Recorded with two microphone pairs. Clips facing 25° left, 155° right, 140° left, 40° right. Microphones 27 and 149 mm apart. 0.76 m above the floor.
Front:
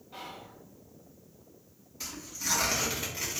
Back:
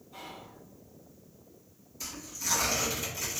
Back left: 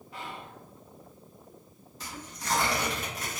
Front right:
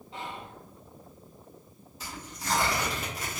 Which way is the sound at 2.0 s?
45° left.